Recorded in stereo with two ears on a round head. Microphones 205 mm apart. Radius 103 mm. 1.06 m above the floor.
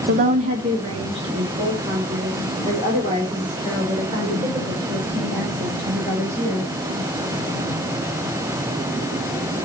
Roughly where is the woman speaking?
Right.